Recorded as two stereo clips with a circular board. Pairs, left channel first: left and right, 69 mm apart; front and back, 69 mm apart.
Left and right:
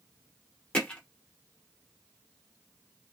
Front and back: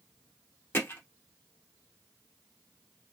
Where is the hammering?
30° left, 0.9 m.